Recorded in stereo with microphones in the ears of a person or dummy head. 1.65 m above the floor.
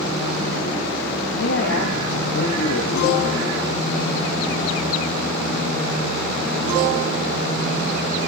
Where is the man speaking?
75° left (ahead or behind), 2.5 m.